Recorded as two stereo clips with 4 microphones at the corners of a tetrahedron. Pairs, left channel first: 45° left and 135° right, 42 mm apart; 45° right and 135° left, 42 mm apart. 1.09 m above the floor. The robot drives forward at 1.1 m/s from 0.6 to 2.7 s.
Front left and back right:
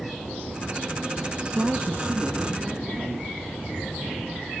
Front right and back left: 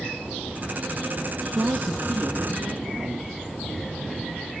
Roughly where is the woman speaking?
Behind.